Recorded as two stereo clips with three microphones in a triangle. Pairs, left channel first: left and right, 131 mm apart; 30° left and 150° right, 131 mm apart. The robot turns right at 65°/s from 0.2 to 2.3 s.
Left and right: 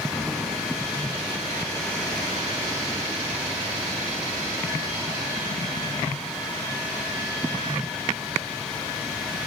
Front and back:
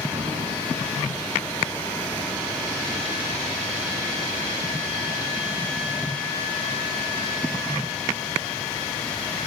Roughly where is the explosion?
Behind.